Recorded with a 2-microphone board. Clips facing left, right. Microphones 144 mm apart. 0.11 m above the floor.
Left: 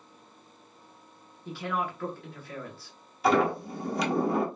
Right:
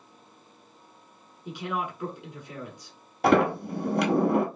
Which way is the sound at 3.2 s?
65° right (ahead or behind).